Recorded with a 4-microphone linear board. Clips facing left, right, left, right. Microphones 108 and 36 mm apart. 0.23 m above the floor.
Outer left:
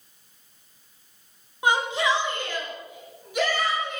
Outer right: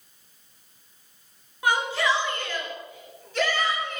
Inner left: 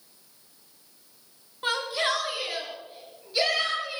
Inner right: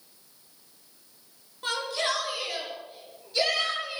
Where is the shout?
20° left (ahead or behind), 3 m; by 4.0 s 10° left (ahead or behind), 4 m.